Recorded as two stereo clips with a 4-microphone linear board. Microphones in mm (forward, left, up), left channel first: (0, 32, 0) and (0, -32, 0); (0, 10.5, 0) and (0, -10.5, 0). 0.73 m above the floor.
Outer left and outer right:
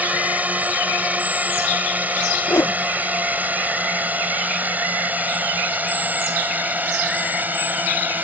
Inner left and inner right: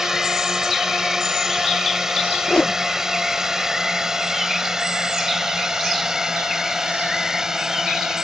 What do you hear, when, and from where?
0.0 s a drone: 25° right (ahead or behind); by 8.2 s 30° right (ahead or behind)
2.5 s a whoosh: 55° left (ahead or behind)